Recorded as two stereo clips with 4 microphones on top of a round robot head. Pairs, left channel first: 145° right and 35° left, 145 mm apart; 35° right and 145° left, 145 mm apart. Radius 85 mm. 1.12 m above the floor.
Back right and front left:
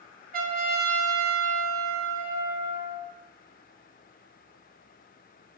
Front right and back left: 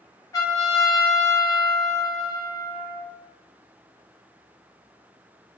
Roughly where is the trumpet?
Ahead left.